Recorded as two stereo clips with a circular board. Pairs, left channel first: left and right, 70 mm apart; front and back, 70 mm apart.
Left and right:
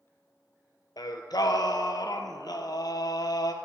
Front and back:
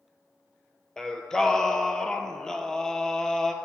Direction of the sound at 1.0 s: 80° left.